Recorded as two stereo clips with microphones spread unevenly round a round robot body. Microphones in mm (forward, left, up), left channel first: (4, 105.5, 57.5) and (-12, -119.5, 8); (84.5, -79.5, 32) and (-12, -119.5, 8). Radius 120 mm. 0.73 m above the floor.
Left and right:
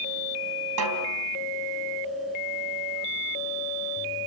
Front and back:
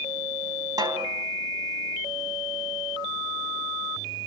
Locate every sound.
0.8 s a snare drum: 105° right, 3.5 m